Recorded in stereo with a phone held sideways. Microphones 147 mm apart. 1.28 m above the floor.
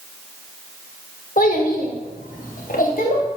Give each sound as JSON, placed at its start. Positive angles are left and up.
{"t": 1.4, "sound": "a child speaking", "side_deg": 70, "distance_m": 2.0}